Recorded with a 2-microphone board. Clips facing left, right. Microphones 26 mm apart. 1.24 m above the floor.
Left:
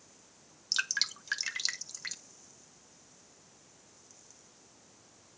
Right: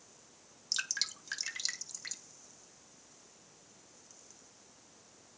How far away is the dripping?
About 1.3 m.